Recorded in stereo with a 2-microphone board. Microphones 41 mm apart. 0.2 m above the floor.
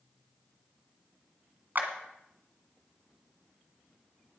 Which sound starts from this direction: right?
A clap, at 1.8 s.